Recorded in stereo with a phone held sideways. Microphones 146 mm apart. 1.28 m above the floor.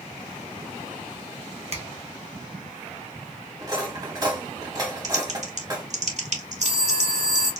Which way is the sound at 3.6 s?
30° right (ahead or behind).